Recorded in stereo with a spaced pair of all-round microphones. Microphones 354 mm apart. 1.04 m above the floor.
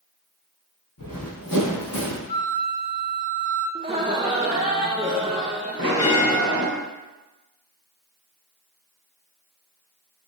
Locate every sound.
1.0 s running footsteps: 65° left (ahead or behind), 2.5 m; by 2.2 s 75° left (ahead or behind), 3 m
2.3 s a flute: 70° left (ahead or behind), 1.3 m
3.8 s laughter: 15° right (ahead or behind), 0.8 m
5.8 s a bell: 40° right (ahead or behind), 1.8 m